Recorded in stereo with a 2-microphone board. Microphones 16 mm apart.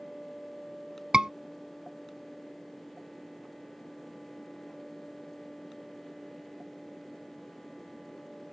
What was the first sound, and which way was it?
A scream, 55° right (ahead or behind).